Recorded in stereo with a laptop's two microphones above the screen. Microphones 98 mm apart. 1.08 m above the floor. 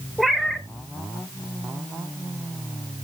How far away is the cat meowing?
About 1.0 m.